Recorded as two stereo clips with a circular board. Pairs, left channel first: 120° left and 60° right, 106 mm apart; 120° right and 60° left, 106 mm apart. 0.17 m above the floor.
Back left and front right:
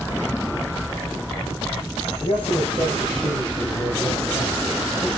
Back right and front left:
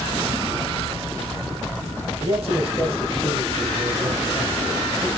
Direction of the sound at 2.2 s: 85° left.